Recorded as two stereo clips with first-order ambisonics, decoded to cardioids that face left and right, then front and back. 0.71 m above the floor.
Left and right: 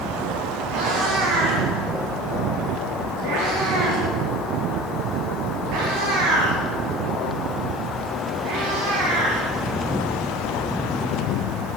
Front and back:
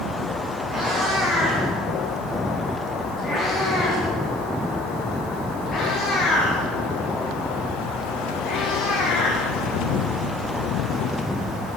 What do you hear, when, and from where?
0.7 s a cat meowing: 105° right, 7.5 m; by 9.5 s 70° right, 8.5 m